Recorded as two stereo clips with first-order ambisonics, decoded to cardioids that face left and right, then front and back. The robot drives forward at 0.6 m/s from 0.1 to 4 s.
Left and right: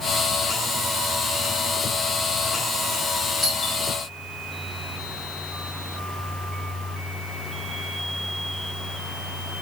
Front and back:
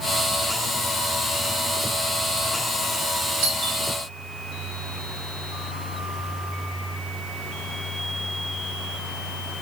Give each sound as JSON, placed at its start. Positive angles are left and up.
{"t": 3.4, "sound": "a doorbell", "azimuth_deg": 180, "distance_m": 3.0}